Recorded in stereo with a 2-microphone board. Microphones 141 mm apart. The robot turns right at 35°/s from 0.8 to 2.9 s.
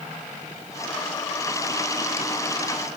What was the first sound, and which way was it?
Only background noise.